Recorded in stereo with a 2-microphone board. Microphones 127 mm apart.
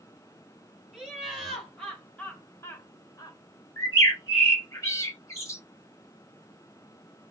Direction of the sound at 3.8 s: 25° left (ahead or behind).